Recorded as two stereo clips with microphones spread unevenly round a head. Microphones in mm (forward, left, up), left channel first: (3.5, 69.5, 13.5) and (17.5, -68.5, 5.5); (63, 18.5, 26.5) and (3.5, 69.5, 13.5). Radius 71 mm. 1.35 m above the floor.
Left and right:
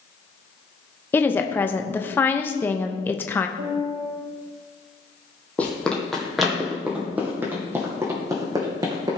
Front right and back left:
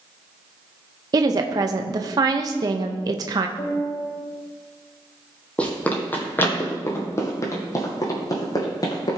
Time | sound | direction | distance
1.1 | a woman speaking | 175° left | 0.6 m
3.6 | a piano | 95° right | 3 m
5.6 | running footsteps | 20° left | 2 m